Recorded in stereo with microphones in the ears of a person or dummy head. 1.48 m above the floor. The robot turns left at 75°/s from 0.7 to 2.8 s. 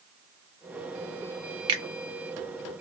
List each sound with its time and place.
1.7 s a finger snap: 30° right (ahead or behind), 0.6 m; by 1.8 s 35° right (ahead or behind), 0.6 m